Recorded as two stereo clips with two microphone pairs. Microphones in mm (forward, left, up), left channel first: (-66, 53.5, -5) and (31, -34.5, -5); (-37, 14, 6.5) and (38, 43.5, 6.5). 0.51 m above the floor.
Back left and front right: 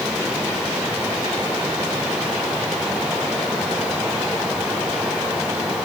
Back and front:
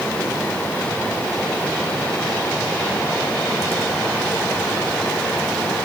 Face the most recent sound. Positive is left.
No sound to turn to.